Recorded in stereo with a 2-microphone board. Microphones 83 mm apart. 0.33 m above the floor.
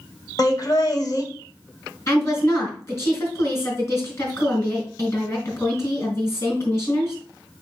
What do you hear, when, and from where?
0.4 s laughter: 50° left (ahead or behind), 1.5 m
2.1 s a woman speaking: 40° left (ahead or behind), 4 m